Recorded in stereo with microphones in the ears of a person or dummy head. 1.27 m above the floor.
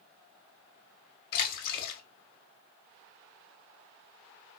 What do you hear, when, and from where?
1.3 s a splash: 55° left (ahead or behind), 1.0 m